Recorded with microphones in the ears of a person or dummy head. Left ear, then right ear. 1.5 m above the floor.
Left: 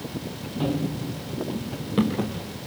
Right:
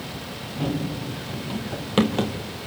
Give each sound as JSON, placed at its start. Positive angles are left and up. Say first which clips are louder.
{"t": 0.6, "sound": "running footsteps", "louder": "left 1 dB", "side_deg": 5, "distance_m": 1.9}